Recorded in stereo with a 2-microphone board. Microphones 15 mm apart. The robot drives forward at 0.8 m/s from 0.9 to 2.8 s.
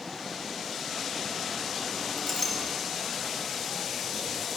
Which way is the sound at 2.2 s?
25° left (ahead or behind).